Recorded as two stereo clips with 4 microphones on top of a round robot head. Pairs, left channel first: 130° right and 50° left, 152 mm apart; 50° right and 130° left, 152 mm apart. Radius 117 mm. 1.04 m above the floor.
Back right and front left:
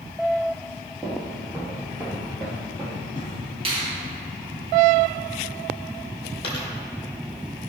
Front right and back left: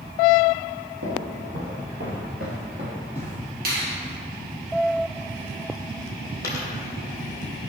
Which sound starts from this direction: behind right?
A dropped coin, at 6.4 s.